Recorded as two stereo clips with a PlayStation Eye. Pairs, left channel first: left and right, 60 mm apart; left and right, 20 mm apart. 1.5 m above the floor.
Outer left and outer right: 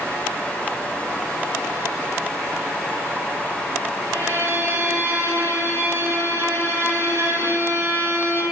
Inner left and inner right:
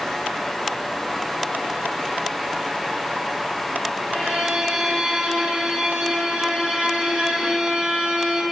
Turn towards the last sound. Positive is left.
turn(degrees=-50)  # may be behind; listen again after turning